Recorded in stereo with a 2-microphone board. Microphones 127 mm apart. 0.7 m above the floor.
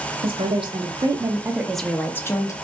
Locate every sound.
0.2 s a woman speaking: 50° right (ahead or behind), 0.9 m; by 2.5 s 25° left (ahead or behind), 0.9 m